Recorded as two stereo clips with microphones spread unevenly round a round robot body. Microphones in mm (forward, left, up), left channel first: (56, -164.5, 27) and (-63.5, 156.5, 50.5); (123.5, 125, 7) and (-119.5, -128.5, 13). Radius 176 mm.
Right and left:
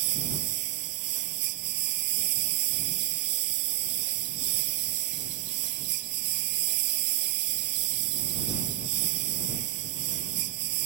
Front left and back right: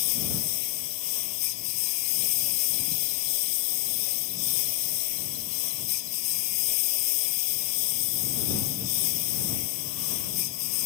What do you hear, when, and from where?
0.0 s a lawn mower: 75° left